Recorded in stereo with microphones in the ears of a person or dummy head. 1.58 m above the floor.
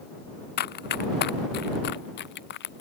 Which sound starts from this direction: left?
Running footsteps, at 0.6 s.